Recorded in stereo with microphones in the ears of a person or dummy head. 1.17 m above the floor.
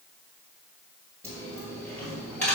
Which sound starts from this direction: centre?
A dropped coin, at 1.2 s.